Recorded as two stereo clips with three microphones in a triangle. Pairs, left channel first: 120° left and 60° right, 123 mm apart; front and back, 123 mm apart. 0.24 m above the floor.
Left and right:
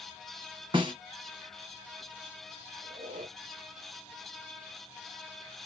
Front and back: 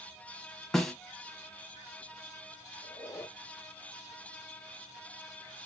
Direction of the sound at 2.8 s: 70° right.